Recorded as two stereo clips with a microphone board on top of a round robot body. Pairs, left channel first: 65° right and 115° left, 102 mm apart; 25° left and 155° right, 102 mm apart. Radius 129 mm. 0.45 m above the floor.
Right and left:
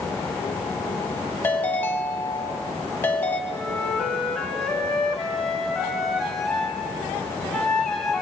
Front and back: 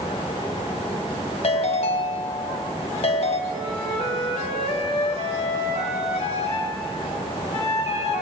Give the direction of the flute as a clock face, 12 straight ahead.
11 o'clock.